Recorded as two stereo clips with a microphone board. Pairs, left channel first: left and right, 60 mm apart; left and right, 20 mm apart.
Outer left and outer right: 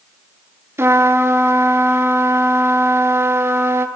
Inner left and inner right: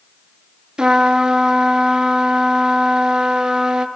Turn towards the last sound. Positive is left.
turn(degrees=-50)  # may be behind; listen again after turning